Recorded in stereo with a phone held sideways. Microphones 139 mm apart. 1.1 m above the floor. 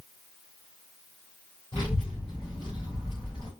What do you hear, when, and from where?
1.7 s a child speaking: 40° left (ahead or behind), 3 m